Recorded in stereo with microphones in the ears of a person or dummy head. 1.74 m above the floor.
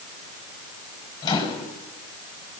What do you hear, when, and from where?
1.2 s a microwave: 20° left (ahead or behind), 1.8 m